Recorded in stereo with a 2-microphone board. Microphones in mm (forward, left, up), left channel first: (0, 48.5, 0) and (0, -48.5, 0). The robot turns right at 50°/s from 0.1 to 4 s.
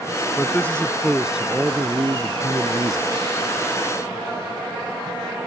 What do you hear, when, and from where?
0.4 s a man speaking: 145° left; by 3.0 s 80° right